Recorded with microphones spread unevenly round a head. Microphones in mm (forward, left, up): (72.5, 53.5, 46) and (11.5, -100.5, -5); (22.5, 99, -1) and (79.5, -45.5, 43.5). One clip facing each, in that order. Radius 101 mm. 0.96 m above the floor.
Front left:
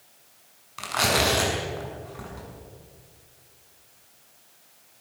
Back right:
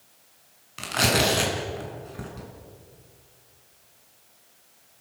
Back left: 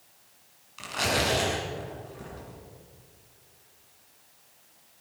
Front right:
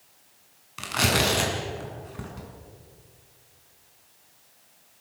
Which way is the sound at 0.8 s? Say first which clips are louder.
Back right 1 dB, front right 3 dB; 50° right.